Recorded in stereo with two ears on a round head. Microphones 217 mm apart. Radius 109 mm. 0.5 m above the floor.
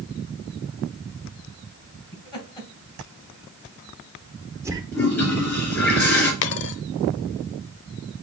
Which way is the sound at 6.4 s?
45° left (ahead or behind).